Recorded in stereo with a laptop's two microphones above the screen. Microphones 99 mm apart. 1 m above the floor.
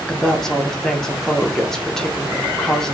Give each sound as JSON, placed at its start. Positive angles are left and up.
{"t": 0.1, "sound": "a woman speaking", "side_deg": 5, "distance_m": 0.9}